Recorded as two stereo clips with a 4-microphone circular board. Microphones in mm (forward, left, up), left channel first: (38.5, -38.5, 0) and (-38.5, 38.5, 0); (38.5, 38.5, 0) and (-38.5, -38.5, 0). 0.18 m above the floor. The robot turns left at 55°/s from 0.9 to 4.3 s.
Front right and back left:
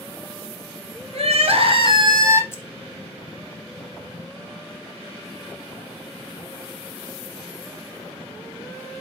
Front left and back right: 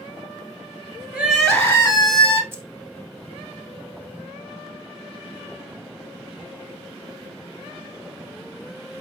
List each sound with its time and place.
1.1 s crying: 150° left, 1.0 m; by 2.4 s 80° left, 1.0 m
2.5 s keys jangling: 90° right, 0.8 m; by 2.6 s 95° right, 0.8 m